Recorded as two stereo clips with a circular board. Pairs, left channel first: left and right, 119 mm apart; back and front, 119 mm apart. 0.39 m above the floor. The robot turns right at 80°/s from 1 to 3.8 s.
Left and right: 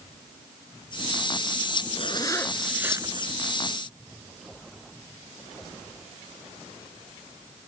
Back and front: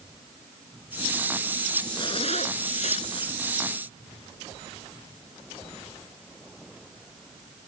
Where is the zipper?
125° left; by 3.3 s 125° right.